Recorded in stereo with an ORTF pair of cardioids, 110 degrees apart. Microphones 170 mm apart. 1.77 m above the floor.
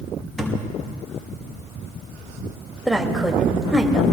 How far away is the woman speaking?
About 2.5 m.